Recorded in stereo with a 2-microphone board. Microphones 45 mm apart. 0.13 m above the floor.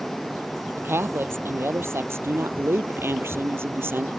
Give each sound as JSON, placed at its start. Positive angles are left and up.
{"t": 0.8, "sound": "a woman speaking", "side_deg": -65}